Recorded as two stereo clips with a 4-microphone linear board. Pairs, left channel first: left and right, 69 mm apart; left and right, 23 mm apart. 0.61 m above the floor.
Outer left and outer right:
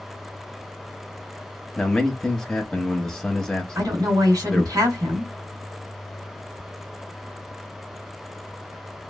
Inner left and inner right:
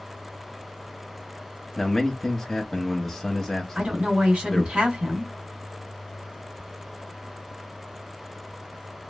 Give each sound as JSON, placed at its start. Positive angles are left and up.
{"t": 1.8, "sound": "a man speaking", "side_deg": 5, "distance_m": 0.8}
{"t": 3.8, "sound": "a woman speaking", "side_deg": -65, "distance_m": 1.5}